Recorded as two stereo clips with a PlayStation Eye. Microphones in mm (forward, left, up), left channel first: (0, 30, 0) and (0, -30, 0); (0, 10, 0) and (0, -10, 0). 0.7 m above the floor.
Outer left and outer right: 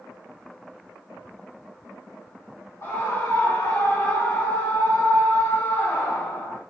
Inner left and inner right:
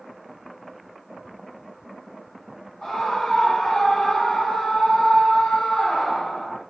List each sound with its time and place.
2.8 s a scream: 60° left (ahead or behind), 2.5 m; by 6.6 s 80° left, 3.5 m